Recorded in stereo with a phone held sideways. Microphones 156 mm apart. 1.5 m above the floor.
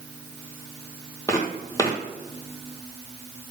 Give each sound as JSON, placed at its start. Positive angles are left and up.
{"t": 1.3, "sound": "footsteps", "side_deg": 20, "distance_m": 2.0}